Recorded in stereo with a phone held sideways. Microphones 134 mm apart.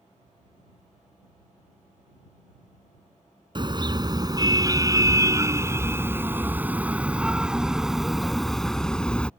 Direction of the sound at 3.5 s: 35° right (ahead or behind).